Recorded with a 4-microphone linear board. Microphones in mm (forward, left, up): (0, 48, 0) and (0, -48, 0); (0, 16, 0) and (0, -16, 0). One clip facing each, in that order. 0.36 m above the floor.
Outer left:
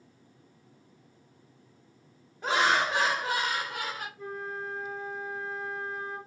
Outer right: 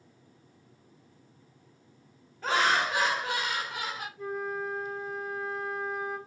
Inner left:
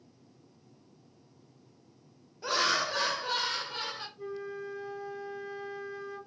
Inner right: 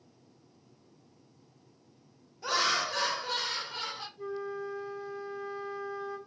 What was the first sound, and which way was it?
Laughter, 15° left (ahead or behind).